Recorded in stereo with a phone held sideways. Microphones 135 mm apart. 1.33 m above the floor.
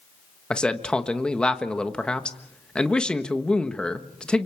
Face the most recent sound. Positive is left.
turn(degrees=5)  # may be behind; listen again after turning